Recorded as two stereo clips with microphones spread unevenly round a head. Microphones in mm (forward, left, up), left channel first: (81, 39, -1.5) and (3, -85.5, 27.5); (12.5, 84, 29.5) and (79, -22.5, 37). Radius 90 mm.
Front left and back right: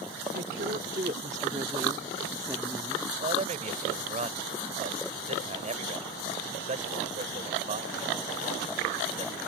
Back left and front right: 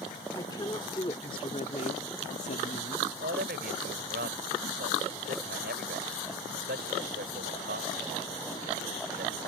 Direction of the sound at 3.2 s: 85° right.